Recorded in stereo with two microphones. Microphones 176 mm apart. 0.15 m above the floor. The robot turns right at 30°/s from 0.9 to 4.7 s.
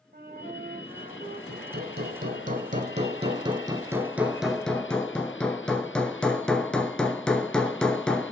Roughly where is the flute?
Right.